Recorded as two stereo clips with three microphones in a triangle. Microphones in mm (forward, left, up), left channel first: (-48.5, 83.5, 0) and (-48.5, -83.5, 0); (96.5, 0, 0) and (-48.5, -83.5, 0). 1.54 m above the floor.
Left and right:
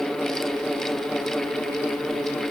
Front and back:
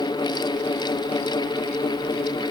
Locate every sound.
Only background noise.